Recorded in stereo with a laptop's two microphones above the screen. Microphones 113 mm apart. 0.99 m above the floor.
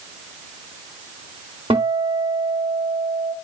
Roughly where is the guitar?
Right.